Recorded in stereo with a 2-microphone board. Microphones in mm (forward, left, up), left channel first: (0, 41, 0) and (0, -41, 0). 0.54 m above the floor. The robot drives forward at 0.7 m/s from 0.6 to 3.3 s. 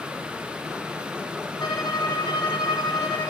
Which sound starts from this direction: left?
A violin, at 1.6 s.